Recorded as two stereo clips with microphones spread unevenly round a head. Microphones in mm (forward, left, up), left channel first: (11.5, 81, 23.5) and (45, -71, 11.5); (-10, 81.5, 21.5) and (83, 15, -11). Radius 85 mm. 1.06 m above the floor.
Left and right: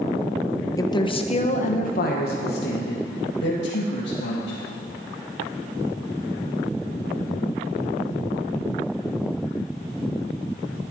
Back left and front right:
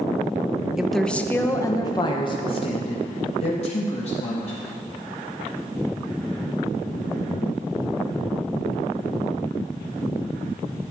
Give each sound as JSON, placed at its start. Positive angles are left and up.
{"t": 0.8, "sound": "a woman speaking", "azimuth_deg": 35, "distance_m": 0.8}